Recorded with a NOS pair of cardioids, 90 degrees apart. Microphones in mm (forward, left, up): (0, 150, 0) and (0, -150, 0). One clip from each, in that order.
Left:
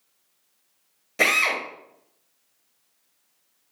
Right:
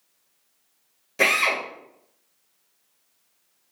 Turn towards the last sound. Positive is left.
turn(degrees=10)